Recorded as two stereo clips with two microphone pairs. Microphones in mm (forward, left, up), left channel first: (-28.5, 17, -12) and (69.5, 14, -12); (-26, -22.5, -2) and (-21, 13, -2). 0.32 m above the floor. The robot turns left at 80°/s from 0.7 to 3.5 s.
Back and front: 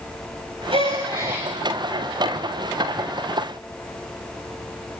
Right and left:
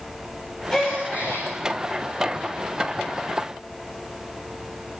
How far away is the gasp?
About 9 m.